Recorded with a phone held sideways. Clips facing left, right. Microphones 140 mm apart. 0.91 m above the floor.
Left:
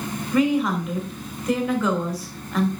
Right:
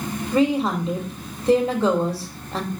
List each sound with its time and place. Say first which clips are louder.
0.3 s a woman speaking: even; 35° right (ahead or behind), 3 m